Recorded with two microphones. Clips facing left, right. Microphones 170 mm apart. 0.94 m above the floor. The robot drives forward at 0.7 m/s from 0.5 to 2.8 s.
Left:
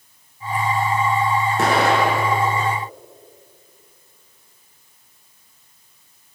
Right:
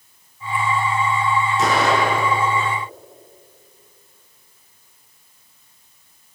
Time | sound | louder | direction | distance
1.6 | an explosion | left 2 dB | 60° left (ahead or behind) | 6 m